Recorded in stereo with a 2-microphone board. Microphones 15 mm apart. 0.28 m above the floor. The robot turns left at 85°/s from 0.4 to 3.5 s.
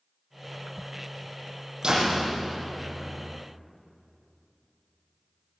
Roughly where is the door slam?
Behind right.